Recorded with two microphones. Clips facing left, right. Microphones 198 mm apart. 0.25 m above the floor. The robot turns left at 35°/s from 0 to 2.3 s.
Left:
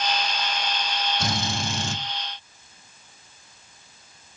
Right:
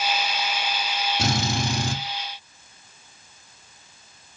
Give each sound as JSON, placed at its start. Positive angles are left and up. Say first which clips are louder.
{"t": 1.2, "sound": "a drill", "louder": "right 3 dB", "side_deg": -80, "distance_m": 3.0}